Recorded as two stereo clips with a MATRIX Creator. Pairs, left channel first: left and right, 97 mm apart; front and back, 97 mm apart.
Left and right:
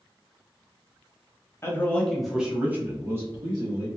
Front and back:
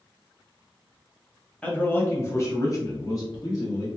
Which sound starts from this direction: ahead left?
A man speaking, at 1.6 s.